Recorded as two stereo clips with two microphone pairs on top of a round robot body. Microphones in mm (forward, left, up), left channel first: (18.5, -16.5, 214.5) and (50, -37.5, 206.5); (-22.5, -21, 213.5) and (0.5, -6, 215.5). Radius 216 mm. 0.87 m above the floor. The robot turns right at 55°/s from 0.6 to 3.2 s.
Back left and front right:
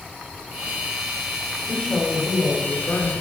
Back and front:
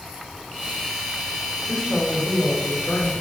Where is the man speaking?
135° left, 2.5 m; by 3.1 s 145° right, 2.5 m.